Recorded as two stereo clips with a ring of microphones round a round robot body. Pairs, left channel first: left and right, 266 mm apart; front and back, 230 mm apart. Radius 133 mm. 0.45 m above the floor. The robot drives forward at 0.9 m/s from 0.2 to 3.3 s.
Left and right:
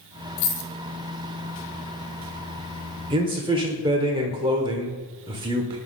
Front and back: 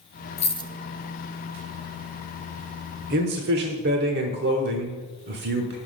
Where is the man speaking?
150° right, 1.0 m; by 5.8 s 155° right, 1.1 m.